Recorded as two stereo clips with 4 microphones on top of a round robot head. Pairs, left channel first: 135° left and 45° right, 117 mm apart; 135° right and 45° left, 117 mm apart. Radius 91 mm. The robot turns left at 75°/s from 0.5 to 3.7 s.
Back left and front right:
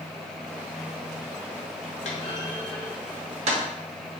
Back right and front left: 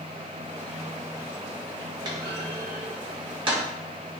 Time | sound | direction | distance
2.0 | a clunk | 100° left | 0.6 m